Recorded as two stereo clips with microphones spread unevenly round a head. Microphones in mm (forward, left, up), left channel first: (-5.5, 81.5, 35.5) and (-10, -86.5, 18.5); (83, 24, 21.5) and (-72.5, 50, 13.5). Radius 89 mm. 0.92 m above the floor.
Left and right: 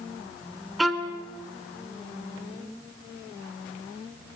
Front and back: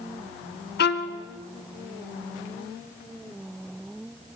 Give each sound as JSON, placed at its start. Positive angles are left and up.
{"t": 0.8, "sound": "a violin", "azimuth_deg": 0, "distance_m": 2.0}